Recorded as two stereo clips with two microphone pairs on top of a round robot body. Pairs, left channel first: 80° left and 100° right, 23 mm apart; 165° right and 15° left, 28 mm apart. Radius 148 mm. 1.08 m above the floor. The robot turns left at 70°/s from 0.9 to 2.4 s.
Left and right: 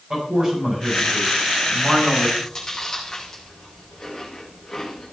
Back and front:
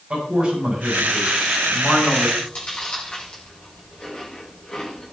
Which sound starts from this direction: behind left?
Chewing, at 2.4 s.